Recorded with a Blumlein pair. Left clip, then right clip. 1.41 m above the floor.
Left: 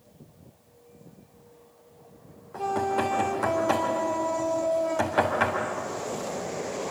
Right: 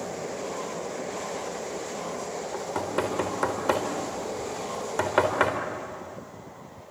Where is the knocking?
20° right, 4 m.